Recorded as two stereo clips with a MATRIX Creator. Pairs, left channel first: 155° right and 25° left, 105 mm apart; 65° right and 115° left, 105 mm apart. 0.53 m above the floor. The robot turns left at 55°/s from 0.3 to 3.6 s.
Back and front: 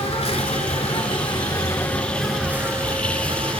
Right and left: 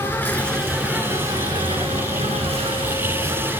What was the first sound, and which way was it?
An insect, 140° right.